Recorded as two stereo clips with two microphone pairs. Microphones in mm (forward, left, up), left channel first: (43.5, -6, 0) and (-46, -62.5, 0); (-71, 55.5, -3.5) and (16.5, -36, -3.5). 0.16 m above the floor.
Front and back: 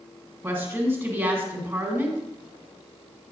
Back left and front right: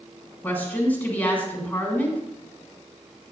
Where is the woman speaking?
175° right, 1.6 m.